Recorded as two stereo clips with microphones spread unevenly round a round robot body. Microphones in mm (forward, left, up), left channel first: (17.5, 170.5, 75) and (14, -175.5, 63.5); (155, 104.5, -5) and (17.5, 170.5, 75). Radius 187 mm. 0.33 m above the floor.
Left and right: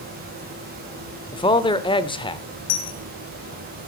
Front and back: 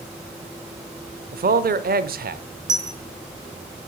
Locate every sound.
1.3 s a man speaking: 155° left, 1.1 m
2.7 s a dropped coin: 95° left, 3 m